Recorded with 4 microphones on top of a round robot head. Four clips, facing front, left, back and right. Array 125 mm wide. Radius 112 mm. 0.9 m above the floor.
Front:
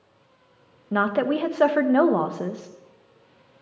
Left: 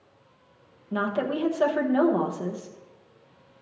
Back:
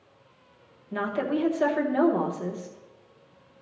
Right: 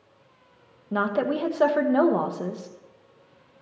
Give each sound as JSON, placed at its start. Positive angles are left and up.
{"t": 0.9, "sound": "a woman speaking", "azimuth_deg": -25, "distance_m": 1.0}